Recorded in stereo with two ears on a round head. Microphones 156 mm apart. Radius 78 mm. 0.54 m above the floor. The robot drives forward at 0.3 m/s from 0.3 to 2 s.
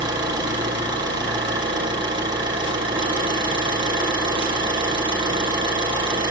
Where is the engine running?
25° right (ahead or behind), 8 m.